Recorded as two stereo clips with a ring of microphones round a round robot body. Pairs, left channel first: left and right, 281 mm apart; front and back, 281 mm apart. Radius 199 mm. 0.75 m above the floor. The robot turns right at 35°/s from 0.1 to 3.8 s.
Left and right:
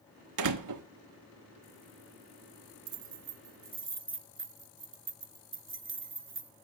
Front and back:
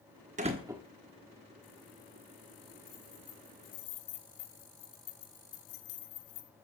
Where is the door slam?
110° right, 1.0 m; by 0.8 s 95° right, 1.0 m.